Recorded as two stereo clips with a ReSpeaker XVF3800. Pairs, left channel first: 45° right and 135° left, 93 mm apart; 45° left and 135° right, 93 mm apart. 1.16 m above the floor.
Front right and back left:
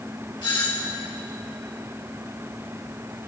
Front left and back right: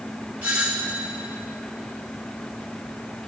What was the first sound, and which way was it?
A doorbell, 60° right.